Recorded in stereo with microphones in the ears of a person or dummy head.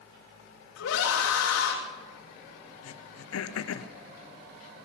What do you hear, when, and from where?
0.8 s a scream: 75° left (ahead or behind), 3 m
2.8 s throat clearing: 85° left, 0.9 m